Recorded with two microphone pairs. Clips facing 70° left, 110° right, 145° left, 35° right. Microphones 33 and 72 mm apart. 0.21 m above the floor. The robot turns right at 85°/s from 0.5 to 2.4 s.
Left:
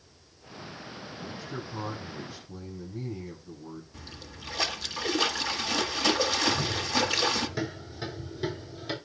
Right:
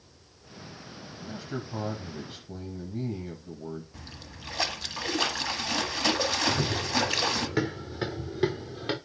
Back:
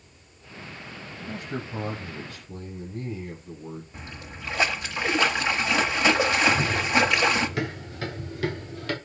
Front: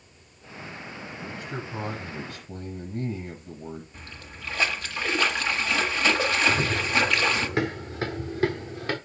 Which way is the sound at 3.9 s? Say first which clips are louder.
Left 1 dB, back 3 dB; straight behind.